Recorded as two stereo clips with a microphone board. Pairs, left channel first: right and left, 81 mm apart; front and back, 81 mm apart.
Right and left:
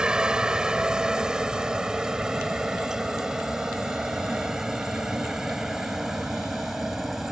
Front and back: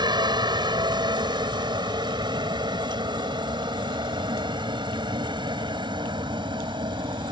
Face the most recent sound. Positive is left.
turn(degrees=175)